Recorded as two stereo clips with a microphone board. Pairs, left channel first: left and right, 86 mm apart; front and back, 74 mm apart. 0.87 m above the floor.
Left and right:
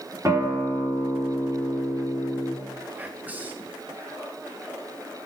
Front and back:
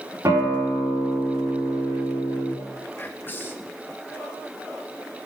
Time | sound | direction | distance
0.2 | a guitar | 140° right | 2.5 m
3.0 | whispering | 35° right | 0.6 m